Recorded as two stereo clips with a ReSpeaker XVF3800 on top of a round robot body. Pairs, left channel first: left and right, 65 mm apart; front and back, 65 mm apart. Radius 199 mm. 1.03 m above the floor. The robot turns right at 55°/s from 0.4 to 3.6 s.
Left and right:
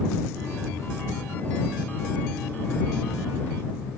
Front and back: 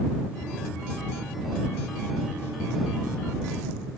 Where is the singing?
I don't hear singing.